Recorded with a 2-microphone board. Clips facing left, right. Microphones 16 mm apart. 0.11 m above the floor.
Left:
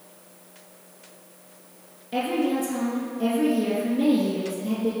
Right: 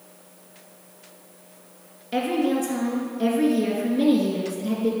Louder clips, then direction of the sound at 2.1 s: Right 2 dB; 30° right (ahead or behind).